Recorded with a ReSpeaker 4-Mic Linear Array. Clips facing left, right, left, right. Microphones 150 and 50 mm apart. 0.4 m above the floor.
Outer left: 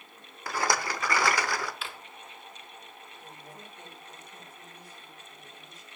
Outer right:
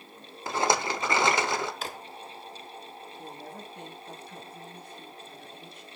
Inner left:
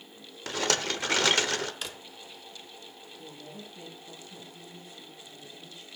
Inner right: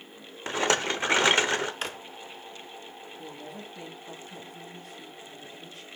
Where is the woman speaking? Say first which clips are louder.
Outer right 6 dB, inner right 3 dB; 60° right (ahead or behind), 3 m.